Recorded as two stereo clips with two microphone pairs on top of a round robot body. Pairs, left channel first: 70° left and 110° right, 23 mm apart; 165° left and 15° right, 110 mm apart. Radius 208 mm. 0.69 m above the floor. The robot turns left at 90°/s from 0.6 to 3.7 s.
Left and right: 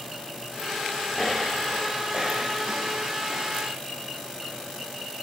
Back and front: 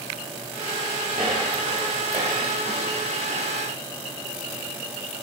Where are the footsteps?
10° left, 0.7 m; by 3.5 s 170° left, 3 m.